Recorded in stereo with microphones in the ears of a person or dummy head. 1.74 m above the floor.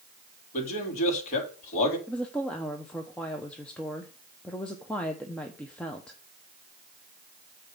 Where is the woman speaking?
10° left (ahead or behind), 0.9 m.